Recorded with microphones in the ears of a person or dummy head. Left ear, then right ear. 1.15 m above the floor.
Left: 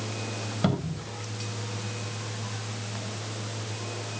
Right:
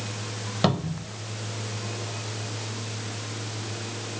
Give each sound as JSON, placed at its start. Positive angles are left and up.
{"t": 0.6, "sound": "a cupboard door", "side_deg": -30, "distance_m": 1.3}